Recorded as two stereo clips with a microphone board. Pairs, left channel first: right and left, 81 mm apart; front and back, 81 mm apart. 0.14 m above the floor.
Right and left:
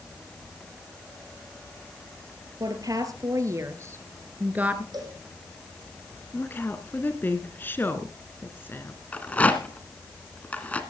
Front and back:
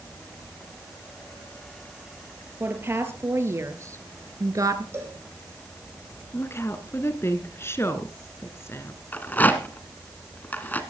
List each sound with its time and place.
2.6 s a woman speaking: 120° left, 2.5 m; by 4.8 s 160° left, 1.7 m
4.9 s a cowbell: 120° left, 5.5 m
6.3 s a woman speaking: 40° right, 1.8 m
9.1 s a rattle: 40° right, 1.5 m